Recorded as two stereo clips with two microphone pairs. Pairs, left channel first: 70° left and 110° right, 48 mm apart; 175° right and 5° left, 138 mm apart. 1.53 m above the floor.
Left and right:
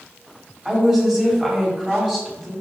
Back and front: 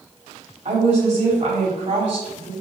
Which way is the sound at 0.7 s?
35° right.